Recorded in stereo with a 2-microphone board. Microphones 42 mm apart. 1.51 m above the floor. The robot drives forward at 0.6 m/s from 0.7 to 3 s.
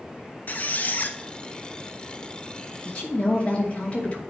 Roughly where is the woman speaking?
Left.